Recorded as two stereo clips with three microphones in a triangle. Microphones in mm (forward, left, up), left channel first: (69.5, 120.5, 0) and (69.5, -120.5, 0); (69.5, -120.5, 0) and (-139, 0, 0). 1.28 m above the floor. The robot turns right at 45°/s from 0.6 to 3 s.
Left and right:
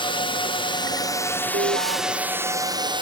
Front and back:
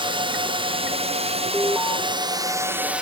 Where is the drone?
120° left; by 3.0 s 130° right.